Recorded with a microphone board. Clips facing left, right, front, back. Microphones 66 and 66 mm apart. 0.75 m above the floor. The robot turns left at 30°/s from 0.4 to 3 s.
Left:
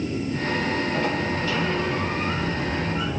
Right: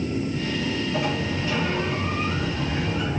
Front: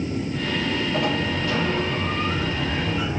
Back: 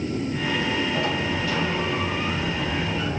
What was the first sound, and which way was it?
A sliding door, 10° right.